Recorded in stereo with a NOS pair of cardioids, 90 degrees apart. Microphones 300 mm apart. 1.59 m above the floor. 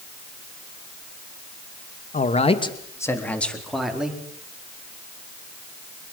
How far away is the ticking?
I don't hear ticking.